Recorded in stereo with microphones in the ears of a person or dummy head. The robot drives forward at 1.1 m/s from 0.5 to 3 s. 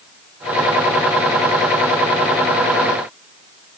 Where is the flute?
I don't hear a flute.